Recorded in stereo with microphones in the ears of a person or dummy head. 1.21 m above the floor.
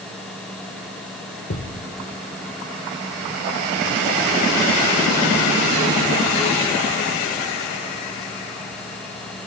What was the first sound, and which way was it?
A thud, 30° left (ahead or behind).